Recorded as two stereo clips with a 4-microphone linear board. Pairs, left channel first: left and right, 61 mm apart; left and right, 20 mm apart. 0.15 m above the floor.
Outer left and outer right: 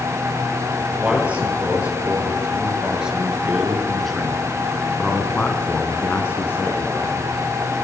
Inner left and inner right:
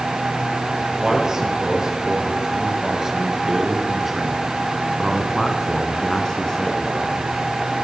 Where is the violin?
No violin in this recording.